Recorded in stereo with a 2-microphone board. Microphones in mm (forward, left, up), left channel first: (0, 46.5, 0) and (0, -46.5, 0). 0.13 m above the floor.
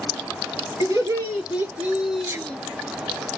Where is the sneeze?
30° right (ahead or behind), 2 m.